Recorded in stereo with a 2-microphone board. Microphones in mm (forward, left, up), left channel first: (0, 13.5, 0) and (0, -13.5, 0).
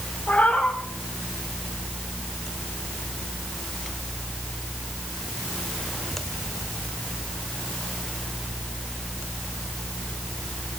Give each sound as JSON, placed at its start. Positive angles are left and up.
{"t": 0.3, "sound": "a cat meowing", "side_deg": 70, "distance_m": 5.5}